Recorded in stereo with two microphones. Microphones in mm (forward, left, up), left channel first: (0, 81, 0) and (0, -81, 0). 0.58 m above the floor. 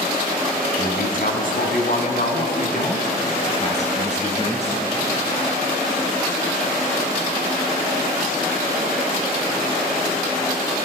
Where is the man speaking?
65° left (ahead or behind), 4.5 m; by 4.8 s 40° left (ahead or behind), 5.5 m.